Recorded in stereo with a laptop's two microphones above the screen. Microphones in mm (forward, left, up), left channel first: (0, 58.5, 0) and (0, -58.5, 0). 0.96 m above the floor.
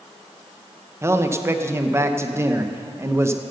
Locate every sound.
1.0 s a man speaking: 25° right (ahead or behind), 1.0 m